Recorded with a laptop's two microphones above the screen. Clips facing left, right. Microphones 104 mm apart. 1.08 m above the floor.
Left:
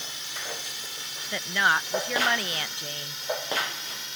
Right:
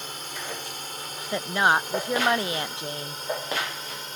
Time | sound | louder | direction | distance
0.0 | a drone | right 3 dB | 50° right (ahead or behind) | ?
1.3 | a woman speaking | right 3 dB | 25° right (ahead or behind) | ?